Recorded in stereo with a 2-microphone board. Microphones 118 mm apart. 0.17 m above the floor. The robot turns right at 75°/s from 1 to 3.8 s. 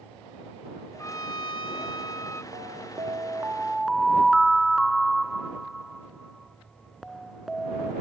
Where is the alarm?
95° right; by 7.9 s straight ahead.